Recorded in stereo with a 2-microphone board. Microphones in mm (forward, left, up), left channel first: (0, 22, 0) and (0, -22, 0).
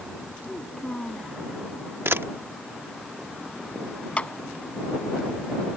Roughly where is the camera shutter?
Right.